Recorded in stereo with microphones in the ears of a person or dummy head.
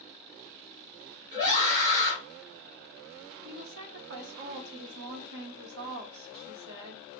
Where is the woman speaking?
65° right (ahead or behind), 0.8 m.